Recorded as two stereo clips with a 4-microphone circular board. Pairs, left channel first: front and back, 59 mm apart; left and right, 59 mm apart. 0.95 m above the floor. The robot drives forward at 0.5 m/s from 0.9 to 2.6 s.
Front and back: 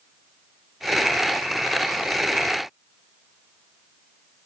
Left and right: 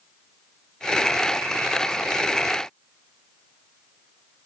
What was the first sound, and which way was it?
Only background noise.